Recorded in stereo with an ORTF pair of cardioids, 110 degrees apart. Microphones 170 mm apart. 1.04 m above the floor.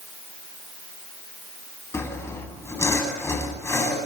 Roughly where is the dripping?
I don't hear dripping.